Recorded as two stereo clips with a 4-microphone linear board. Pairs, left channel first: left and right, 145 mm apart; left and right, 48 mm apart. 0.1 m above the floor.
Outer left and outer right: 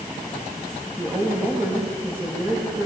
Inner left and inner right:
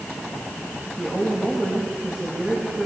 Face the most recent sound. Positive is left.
turn(degrees=-15)  # may be behind; listen again after turning